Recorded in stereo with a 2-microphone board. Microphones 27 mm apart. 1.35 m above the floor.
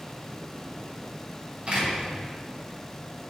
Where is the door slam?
45° right (ahead or behind), 3 m.